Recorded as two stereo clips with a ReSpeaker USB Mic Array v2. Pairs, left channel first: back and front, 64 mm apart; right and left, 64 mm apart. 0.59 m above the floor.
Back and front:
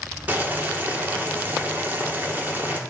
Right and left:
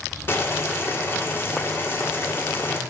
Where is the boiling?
50° right, 1.6 m.